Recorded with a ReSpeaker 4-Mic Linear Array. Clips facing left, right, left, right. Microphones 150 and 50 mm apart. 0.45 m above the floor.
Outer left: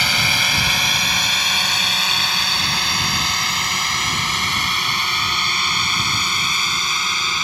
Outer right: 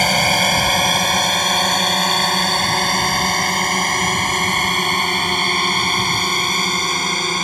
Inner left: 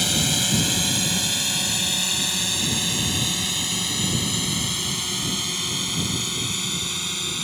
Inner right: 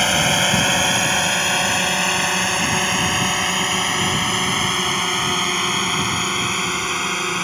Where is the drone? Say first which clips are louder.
Outer right 8 dB, inner right 7 dB; 50° right (ahead or behind).